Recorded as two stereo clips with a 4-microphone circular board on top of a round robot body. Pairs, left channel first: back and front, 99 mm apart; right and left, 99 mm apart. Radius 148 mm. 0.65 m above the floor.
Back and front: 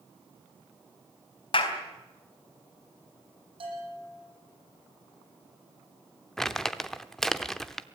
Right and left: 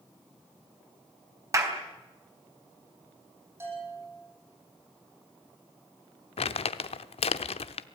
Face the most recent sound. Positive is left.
turn(degrees=-95)